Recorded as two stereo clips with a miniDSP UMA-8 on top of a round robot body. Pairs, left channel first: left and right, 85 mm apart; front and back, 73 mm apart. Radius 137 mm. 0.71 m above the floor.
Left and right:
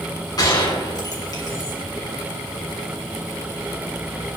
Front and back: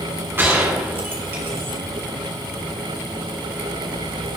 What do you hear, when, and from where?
0.4 s a gunshot: 120° left, 2.5 m